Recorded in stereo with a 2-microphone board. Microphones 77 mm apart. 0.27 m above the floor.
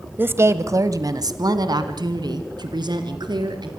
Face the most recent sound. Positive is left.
turn(degrees=-75)  # may be behind; listen again after turning